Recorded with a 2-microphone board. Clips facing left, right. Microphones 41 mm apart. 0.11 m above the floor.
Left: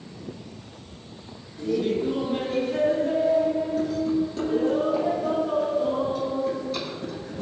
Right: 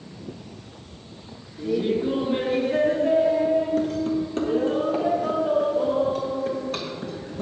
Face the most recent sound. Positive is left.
turn(degrees=-60)  # may be behind; listen again after turning